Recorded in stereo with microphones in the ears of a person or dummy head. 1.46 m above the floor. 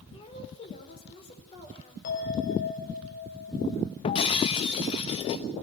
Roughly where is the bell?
Left.